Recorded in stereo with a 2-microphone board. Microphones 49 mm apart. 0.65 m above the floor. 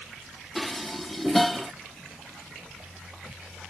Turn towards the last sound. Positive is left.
turn(degrees=0)  # may be behind; listen again after turning